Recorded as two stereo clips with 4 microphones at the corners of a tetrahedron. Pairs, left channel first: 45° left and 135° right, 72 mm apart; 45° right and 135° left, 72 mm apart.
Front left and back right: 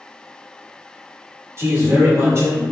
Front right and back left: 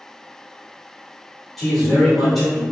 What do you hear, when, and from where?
1.6 s a man speaking: 130° right, 1.2 m